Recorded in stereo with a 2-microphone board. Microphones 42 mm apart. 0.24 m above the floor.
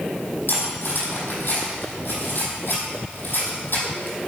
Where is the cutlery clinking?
60° left (ahead or behind), 4.5 m.